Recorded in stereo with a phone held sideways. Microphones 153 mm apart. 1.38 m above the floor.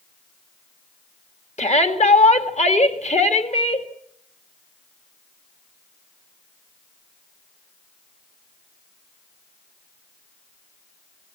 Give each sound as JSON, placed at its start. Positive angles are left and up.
{"t": 1.6, "sound": "a shout", "side_deg": 50, "distance_m": 2.0}